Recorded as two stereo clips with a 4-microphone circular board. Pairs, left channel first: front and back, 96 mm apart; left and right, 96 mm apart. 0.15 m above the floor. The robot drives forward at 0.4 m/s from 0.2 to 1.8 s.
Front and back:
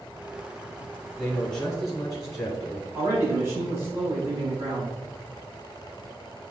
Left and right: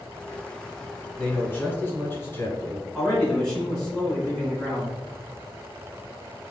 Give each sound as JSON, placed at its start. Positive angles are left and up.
{"t": 1.2, "sound": "a man speaking", "azimuth_deg": 60, "distance_m": 1.1}
{"t": 2.9, "sound": "a man speaking", "azimuth_deg": 180, "distance_m": 1.7}